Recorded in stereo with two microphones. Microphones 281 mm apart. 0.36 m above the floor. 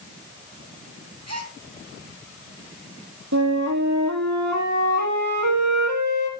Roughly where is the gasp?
Right.